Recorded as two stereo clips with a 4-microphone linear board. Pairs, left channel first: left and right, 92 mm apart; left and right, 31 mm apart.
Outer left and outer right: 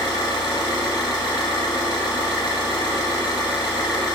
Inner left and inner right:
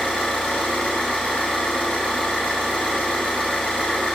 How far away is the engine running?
About 1.4 m.